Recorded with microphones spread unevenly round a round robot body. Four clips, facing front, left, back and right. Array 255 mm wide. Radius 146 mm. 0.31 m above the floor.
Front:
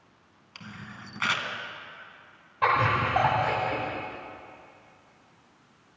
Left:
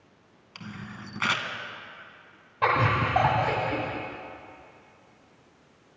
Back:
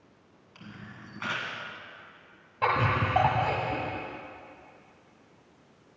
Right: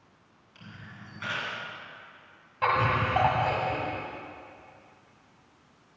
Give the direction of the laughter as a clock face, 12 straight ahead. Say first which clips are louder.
Left 1 dB, front 3 dB; 7 o'clock.